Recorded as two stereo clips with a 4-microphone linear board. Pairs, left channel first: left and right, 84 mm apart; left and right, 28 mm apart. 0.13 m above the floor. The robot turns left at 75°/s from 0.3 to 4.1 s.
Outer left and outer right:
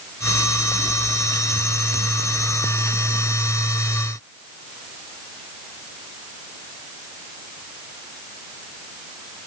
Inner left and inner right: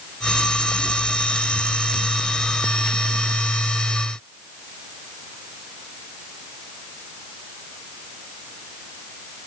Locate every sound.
Only background noise.